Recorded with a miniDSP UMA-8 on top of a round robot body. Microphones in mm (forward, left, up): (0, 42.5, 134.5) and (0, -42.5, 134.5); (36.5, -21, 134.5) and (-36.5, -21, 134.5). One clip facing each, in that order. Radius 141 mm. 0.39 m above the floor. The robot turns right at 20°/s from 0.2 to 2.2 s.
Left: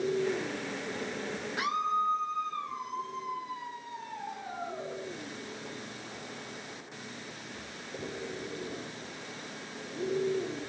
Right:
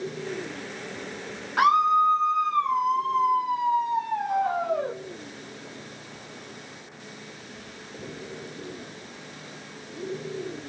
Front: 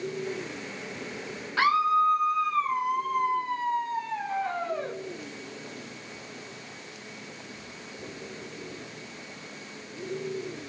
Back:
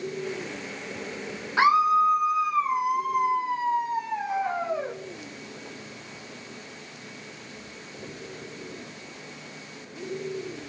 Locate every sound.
1.6 s a scream: 115° right, 1.8 m; by 5.0 s 100° right, 1.8 m